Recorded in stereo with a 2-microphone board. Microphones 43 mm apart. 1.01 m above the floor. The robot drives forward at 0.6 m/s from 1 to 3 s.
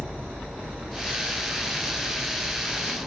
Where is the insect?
75° right (ahead or behind), 1.6 m; by 3.1 s 50° right (ahead or behind), 2.0 m.